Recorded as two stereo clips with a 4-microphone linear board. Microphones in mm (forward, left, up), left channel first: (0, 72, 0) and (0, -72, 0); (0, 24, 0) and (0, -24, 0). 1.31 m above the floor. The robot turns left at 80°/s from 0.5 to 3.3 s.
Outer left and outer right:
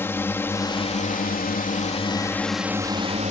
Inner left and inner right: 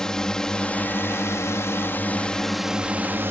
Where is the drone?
165° left; by 3.3 s 60° right.